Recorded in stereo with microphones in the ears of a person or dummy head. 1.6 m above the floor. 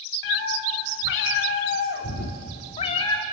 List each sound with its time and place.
0.2 s a cat meowing: 70° left (ahead or behind), 3 m; by 3.2 s 15° left (ahead or behind), 1.4 m